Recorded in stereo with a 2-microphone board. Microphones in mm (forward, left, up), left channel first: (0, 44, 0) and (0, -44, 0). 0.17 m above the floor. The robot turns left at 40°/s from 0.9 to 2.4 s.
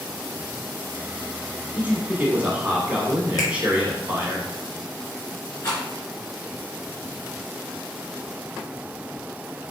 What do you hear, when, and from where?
1.7 s a man speaking: 20° right (ahead or behind), 1.3 m; by 4.4 s 15° right (ahead or behind), 1.3 m
3.4 s a finger snap: 40° left (ahead or behind), 1.8 m
5.6 s a rattle: 35° left (ahead or behind), 2 m